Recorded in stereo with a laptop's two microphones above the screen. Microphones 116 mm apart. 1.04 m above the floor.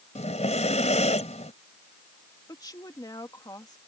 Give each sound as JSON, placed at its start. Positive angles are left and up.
{"t": 0.1, "sound": "breathing", "side_deg": 75}
{"t": 2.5, "sound": "a woman speaking", "side_deg": 35}